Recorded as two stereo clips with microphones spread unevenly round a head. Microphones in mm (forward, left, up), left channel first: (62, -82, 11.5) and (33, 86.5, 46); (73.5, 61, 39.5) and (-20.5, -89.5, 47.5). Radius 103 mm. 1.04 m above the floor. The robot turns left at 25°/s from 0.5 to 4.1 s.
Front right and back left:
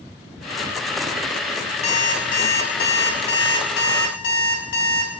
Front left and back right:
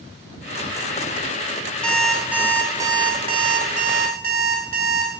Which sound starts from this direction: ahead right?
An alarm clock, at 1.8 s.